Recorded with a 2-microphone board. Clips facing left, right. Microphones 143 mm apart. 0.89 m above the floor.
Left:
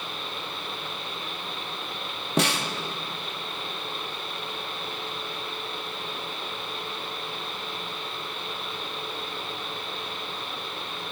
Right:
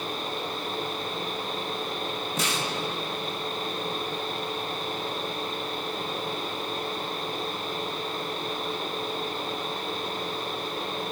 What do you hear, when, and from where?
2.4 s a snare drum: 65° left (ahead or behind), 1.6 m